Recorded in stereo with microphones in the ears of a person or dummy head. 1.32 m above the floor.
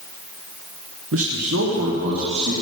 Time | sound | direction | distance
1.1 | a man speaking | 65° right (ahead or behind) | 0.7 m